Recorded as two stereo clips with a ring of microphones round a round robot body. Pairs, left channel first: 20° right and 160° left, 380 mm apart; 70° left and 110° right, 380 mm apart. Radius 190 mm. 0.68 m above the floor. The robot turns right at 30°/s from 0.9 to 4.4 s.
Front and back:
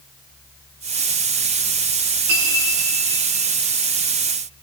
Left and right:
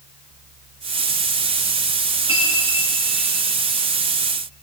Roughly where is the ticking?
I don't hear ticking.